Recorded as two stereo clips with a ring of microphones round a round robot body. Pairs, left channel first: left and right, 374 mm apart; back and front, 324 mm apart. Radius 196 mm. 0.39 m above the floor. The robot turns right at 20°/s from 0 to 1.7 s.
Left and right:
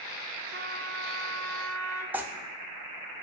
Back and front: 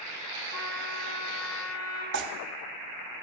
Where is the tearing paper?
10° right, 0.6 m.